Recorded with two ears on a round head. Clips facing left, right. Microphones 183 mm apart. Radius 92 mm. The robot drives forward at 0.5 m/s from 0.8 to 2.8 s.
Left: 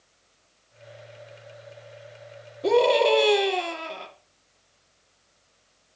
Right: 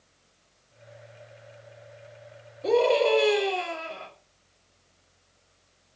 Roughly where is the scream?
Left.